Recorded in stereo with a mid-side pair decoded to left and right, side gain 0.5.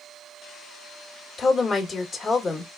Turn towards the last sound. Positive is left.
turn(degrees=45)